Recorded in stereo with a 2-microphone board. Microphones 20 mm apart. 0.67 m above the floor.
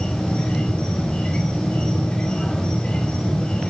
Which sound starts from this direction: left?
An insect, at 0.0 s.